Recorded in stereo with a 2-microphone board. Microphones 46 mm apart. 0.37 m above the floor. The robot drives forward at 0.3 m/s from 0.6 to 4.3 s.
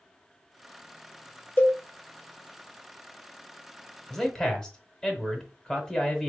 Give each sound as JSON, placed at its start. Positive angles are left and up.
{"t": 1.6, "sound": "a cowbell", "side_deg": 35, "distance_m": 0.7}
{"t": 4.1, "sound": "a man speaking", "side_deg": 15, "distance_m": 0.9}